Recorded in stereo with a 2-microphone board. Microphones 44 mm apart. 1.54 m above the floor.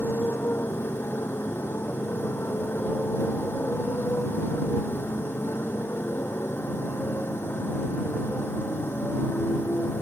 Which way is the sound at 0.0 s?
65° left (ahead or behind).